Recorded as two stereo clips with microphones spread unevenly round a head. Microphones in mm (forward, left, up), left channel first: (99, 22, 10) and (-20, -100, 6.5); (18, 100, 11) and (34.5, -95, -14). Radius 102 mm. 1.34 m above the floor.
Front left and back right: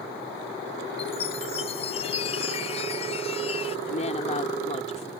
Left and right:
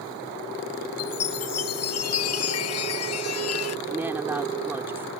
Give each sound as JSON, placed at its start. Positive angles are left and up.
{"t": 1.0, "sound": "a chime", "azimuth_deg": 110}
{"t": 3.9, "sound": "a woman speaking", "azimuth_deg": -5}